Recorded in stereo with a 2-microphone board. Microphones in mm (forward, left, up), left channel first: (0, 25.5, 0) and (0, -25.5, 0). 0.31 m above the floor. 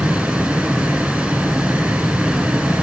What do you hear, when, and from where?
0.0 s running water: 20° right (ahead or behind), 1.1 m